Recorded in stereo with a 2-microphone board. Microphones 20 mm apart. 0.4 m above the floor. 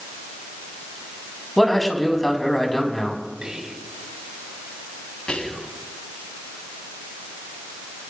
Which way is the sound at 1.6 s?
10° left (ahead or behind).